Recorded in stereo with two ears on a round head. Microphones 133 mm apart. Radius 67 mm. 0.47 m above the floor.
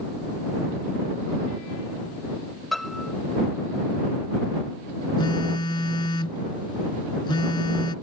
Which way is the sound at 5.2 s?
30° left (ahead or behind).